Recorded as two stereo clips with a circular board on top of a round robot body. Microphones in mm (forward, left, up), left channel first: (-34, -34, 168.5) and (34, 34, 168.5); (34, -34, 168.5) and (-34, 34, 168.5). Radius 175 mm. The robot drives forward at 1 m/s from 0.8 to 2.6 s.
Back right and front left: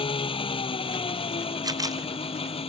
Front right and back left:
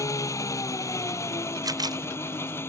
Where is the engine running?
105° right; by 2.7 s 110° right.